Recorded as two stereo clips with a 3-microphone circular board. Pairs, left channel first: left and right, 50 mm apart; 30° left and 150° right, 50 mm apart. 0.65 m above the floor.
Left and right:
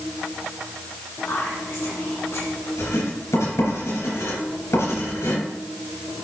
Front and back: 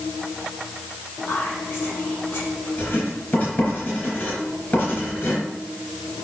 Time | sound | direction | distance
1.3 | whispering | 85° left | 3 m
2.8 | writing | 85° left | 4 m